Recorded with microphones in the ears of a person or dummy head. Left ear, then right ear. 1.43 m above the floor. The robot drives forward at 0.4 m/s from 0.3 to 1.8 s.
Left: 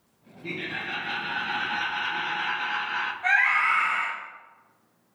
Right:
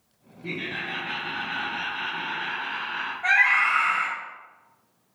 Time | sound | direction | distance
0.4 | laughter | 35° left (ahead or behind) | 0.9 m
3.2 | a scream | 10° left (ahead or behind) | 0.8 m